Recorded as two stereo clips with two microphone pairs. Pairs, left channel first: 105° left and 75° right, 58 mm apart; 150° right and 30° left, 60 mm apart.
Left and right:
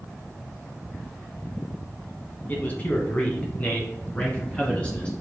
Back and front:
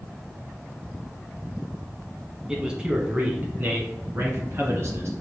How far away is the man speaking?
About 1.5 m.